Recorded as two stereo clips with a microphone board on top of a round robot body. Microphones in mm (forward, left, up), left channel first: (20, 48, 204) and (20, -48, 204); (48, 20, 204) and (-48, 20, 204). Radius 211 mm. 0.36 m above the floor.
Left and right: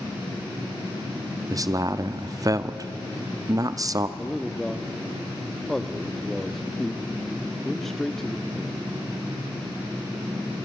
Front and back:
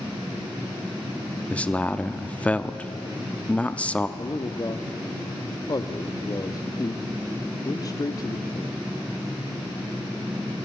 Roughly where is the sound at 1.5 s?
Right.